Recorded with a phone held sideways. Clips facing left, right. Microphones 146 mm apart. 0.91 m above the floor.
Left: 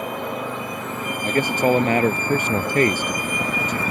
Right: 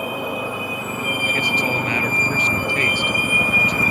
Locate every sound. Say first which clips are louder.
0.0 s a vehicle: right 2 dB; 10° right (ahead or behind)
1.2 s a man speaking: left 8 dB; 45° left (ahead or behind)